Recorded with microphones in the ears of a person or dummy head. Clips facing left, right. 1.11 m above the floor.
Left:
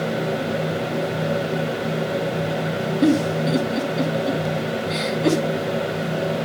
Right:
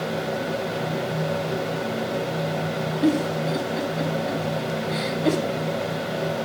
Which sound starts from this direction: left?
A giggle, at 3.0 s.